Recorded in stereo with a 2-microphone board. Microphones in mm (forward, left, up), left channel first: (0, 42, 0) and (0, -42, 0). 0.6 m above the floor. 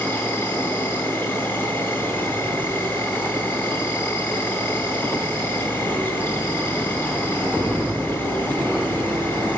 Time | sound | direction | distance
0.0 | an insect | 25° left (ahead or behind) | 2.5 m